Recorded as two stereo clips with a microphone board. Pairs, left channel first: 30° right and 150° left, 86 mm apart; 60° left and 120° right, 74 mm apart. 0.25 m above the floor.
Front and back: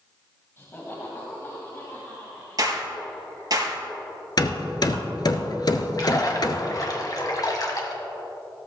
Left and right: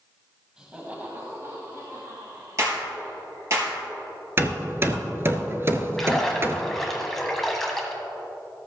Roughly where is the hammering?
Ahead right.